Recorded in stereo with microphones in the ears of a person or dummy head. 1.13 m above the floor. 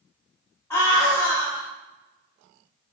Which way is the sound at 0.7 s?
5° left (ahead or behind).